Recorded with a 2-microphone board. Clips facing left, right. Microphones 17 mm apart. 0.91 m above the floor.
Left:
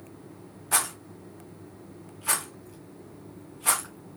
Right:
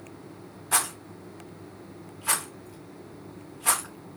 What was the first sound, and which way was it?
A rattle, 15° right (ahead or behind).